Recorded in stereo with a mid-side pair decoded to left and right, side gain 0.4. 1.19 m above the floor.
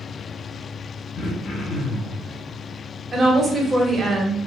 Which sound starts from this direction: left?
Throat clearing, at 1.1 s.